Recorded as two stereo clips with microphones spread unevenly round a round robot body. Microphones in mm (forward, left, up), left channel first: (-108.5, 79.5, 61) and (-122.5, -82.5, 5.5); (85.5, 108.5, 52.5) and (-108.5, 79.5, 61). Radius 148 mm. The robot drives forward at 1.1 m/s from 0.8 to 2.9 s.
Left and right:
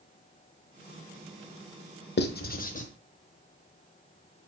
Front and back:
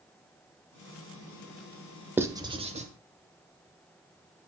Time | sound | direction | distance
2.2 | writing | 105° left | 1.3 m